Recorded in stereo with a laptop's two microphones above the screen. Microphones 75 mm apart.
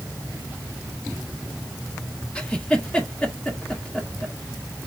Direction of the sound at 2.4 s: 15° left (ahead or behind).